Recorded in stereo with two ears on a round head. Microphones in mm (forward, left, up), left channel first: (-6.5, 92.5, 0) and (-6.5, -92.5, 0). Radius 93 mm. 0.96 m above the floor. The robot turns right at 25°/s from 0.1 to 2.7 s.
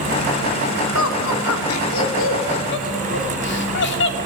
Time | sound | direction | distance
0.9 | laughter | 70° left (ahead or behind) | 2.5 m